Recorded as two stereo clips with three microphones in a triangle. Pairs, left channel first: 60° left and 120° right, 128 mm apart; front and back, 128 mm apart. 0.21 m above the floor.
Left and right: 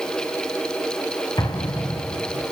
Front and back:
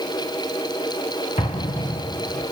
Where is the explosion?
5° left, 2 m.